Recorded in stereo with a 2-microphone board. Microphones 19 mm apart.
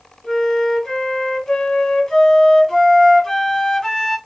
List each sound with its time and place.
0.2 s a flute: 30° left (ahead or behind), 1.7 m